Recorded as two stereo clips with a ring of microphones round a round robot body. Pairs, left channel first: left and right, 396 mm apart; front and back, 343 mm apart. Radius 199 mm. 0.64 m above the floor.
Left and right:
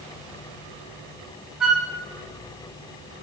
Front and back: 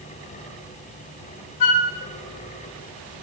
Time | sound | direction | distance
1.6 | a flute | straight ahead | 0.6 m